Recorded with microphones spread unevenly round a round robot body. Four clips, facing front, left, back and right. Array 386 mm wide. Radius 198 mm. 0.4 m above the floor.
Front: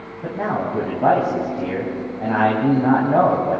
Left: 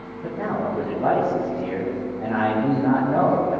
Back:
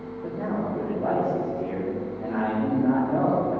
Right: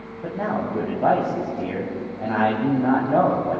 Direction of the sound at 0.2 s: 30° right.